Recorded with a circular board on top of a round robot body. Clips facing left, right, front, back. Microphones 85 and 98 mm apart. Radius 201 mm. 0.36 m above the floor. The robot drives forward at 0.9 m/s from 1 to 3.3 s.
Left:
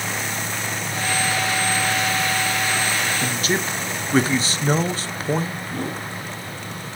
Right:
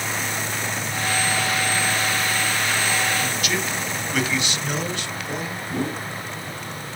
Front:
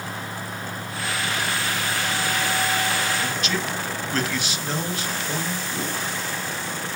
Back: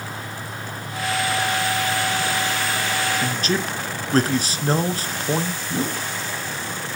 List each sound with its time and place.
3.2 s a man speaking: 135° left, 1.5 m
5.7 s a whoosh: 155° right, 5 m